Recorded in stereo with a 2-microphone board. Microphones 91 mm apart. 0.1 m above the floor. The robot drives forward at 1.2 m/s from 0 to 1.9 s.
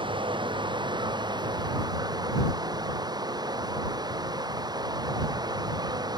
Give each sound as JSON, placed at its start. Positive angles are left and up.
{"t": 0.0, "sound": "running water", "side_deg": -60}